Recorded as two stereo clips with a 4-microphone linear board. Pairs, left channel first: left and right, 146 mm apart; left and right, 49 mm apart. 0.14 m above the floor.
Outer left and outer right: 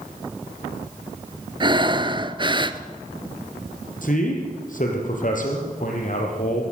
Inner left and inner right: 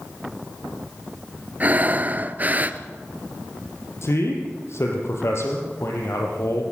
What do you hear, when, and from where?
1.6 s breathing: 35° right (ahead or behind), 0.7 m
4.0 s a man speaking: 65° left (ahead or behind), 5 m